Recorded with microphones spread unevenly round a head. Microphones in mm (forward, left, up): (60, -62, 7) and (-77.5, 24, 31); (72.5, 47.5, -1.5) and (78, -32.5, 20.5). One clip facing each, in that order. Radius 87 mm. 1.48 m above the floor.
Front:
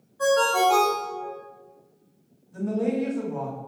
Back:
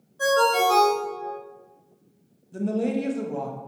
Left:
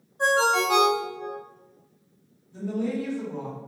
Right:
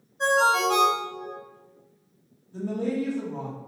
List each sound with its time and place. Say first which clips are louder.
0.2 s a ringtone: even, right 1 dB; 160° left, 1.2 m
2.5 s a woman speaking: even, right 1 dB; 160° right, 0.5 m